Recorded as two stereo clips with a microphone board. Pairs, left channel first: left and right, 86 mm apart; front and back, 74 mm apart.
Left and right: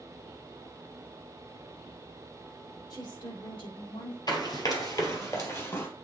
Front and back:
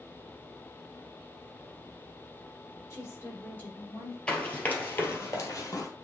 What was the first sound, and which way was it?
A woman speaking, 55° left.